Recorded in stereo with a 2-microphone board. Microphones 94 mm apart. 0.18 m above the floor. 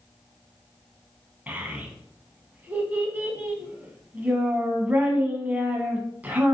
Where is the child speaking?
20° right (ahead or behind), 0.7 m.